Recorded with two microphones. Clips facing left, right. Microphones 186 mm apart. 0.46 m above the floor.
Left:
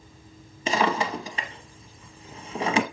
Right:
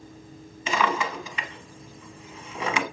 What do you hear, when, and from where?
0.7 s a drawer: 35° left (ahead or behind), 0.9 m